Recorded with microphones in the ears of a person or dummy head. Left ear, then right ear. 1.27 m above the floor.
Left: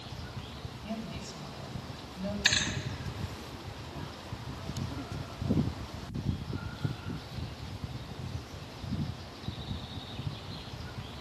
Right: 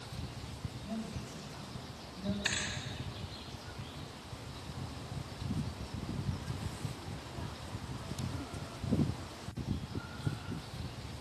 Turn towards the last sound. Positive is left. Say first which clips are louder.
# left 8 dB
turn(degrees=20)  # may be behind; listen again after turning